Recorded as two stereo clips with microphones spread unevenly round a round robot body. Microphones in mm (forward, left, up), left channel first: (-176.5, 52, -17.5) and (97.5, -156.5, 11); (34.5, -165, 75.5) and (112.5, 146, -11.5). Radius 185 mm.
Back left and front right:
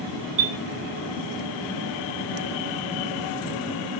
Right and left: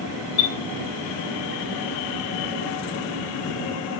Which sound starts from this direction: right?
A chime, at 0.4 s.